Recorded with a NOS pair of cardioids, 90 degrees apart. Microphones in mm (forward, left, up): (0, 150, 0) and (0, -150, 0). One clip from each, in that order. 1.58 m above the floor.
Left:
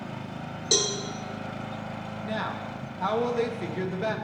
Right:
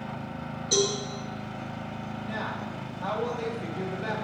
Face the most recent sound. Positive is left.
turn(degrees=50)